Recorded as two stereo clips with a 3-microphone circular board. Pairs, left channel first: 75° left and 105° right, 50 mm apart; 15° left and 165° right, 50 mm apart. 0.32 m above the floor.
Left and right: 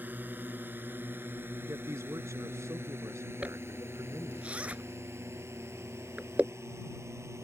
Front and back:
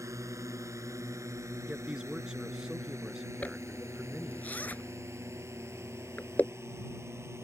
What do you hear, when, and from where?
0.0 s a drone: 160° right; by 7.5 s 135° right
1.7 s a man speaking: 90° right
3.4 s a zipper: 40° right